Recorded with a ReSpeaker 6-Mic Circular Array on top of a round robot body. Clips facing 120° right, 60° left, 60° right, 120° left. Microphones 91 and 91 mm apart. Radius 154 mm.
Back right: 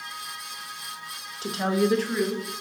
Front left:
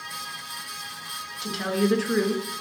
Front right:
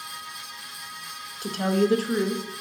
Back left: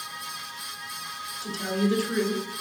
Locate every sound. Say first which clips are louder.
1.4 s a woman speaking: back right 1 dB, front right 4 dB; 75° right, 1.0 m; by 2.4 s 15° left, 0.9 m